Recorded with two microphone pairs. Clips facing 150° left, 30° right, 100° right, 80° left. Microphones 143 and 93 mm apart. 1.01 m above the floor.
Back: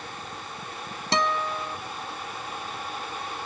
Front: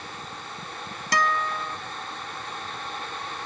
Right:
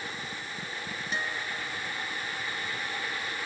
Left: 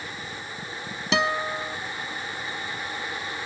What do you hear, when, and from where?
1.1 s a guitar: 85° left